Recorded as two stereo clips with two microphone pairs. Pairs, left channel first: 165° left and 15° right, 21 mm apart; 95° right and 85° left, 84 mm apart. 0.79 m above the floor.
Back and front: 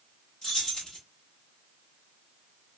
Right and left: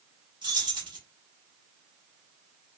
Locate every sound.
0.4 s keys jangling: 110° left, 1.6 m